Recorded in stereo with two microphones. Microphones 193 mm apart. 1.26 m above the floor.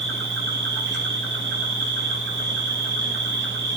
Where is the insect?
80° right, 6.5 m.